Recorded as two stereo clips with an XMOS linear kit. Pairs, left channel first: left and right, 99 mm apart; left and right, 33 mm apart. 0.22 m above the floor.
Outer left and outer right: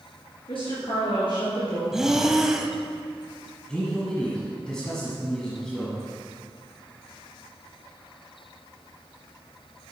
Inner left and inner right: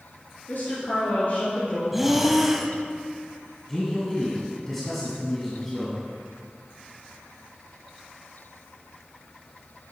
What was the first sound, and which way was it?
A woman speaking, 65° left (ahead or behind).